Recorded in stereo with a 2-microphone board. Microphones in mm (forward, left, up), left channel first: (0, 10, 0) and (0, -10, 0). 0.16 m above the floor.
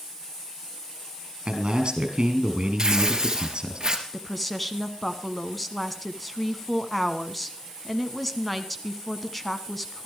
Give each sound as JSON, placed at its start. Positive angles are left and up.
{"t": 1.4, "sound": "a man speaking", "side_deg": -50, "distance_m": 3.5}
{"t": 2.8, "sound": "tearing paper", "side_deg": -35, "distance_m": 2.5}
{"t": 4.1, "sound": "a woman speaking", "side_deg": 10, "distance_m": 1.2}